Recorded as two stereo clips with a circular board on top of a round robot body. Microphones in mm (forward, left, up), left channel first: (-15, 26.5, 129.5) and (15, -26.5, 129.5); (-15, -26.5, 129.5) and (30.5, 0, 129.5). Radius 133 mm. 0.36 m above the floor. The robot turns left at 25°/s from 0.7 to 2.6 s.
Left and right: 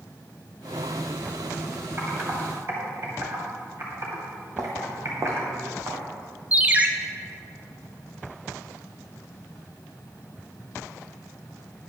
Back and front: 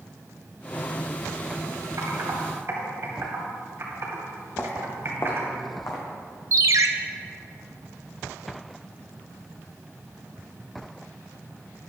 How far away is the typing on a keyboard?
About 2.5 m.